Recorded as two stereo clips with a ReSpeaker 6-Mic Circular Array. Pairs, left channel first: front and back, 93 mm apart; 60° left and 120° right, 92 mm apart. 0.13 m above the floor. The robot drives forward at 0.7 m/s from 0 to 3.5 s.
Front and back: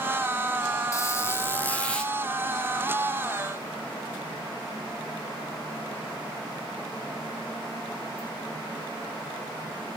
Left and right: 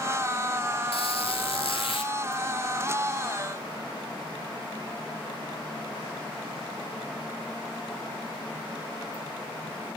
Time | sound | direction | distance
0.9 | a squeak | 55° left | 2.0 m